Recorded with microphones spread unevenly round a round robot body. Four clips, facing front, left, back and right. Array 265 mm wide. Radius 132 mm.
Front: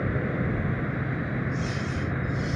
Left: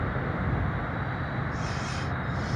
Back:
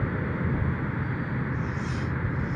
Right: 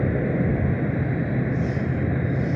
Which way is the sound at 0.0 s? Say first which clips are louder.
Right 8 dB, front 2 dB; 90° right.